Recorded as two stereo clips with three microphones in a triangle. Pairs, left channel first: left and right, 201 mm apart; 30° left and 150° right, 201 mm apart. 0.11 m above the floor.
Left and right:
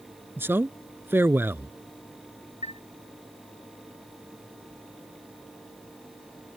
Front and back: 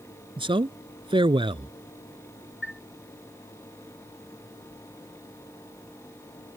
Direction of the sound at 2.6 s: 35° left.